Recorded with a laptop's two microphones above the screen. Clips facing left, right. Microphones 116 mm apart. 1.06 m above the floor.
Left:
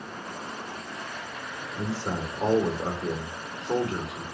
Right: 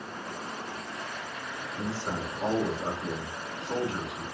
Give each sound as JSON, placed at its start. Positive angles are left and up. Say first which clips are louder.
{"t": 1.8, "sound": "a man speaking", "louder": "left 3 dB", "side_deg": 80, "distance_m": 2.5}